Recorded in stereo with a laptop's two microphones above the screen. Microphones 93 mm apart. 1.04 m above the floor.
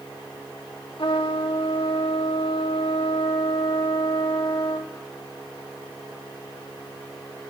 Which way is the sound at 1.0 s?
75° left (ahead or behind).